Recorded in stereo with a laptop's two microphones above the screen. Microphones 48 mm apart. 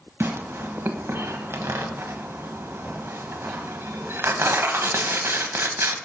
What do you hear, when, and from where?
0.2 s tearing paper: 55° right (ahead or behind), 0.9 m